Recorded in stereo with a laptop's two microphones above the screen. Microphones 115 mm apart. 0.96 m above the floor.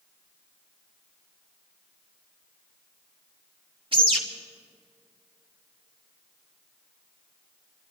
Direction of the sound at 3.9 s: 50° right (ahead or behind).